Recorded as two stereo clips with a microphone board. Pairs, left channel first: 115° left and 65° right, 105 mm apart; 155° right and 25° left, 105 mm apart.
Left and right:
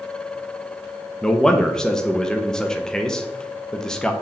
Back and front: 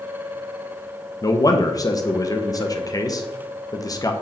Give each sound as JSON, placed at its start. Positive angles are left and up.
{"t": 1.2, "sound": "a man speaking", "azimuth_deg": -165, "distance_m": 0.8}